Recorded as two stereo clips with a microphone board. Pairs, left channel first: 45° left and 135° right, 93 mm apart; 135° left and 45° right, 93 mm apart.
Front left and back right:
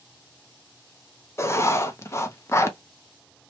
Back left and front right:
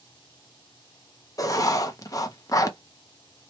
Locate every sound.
1.4 s writing: 95° left, 0.5 m